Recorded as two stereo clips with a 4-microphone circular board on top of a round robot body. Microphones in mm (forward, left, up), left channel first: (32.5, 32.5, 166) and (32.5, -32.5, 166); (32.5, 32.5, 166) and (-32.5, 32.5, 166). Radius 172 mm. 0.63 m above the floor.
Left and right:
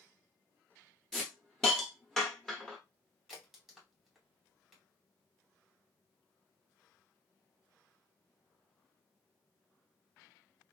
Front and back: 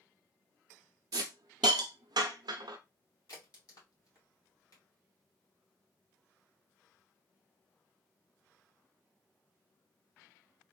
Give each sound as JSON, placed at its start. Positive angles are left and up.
{"t": 1.1, "sound": "a hiss", "azimuth_deg": 180, "distance_m": 0.6}
{"t": 3.3, "sound": "a crack", "azimuth_deg": 0, "distance_m": 2.5}